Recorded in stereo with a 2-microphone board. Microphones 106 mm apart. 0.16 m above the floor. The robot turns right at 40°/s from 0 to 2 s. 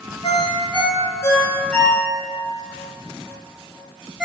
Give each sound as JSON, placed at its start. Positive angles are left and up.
{"t": 0.2, "sound": "a ringtone", "side_deg": 60, "distance_m": 1.6}